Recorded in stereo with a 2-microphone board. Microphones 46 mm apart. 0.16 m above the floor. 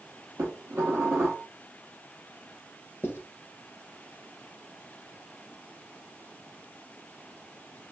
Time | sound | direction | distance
0.4 | dishes clattering | 70° right (ahead or behind) | 2.5 m
3.0 | writing | 60° left (ahead or behind) | 1.4 m